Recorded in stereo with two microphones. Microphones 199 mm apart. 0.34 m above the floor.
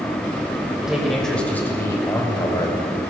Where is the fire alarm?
No fire alarm in this recording.